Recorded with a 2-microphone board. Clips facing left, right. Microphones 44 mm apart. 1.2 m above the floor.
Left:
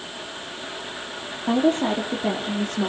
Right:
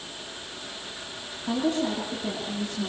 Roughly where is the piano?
I don't hear a piano.